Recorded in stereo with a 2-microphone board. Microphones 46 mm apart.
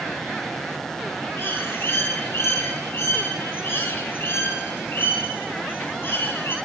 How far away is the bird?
About 2.5 m.